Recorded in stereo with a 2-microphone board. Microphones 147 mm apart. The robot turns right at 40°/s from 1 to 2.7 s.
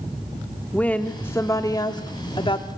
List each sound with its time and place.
0.7 s a woman speaking: 15° left, 1.3 m; by 2.7 s 85° left, 1.3 m